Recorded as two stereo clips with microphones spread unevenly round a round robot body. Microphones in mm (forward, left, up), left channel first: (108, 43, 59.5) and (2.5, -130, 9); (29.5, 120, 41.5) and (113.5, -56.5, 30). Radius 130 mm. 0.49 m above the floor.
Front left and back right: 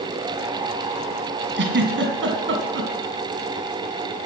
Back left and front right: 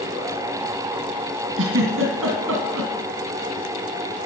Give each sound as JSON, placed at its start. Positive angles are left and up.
{"t": 1.6, "sound": "a giggle", "azimuth_deg": -95, "distance_m": 2.5}